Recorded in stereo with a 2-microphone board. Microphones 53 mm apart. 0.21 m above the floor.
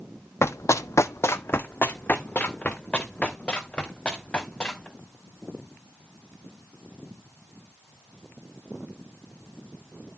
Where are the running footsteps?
60° left (ahead or behind), 0.6 m; by 4.9 s 15° left (ahead or behind), 3 m.